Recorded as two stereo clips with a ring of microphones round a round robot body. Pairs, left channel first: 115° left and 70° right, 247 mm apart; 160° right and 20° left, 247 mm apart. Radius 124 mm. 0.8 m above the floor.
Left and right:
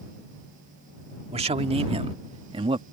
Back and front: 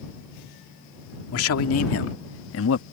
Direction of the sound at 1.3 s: 135° right.